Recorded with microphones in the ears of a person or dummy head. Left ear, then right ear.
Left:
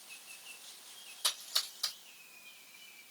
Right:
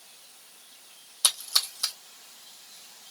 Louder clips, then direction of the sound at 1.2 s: Right 9 dB; 55° right (ahead or behind).